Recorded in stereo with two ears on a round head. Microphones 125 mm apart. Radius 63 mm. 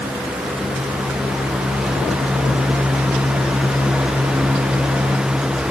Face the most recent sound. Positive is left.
No sound to turn to.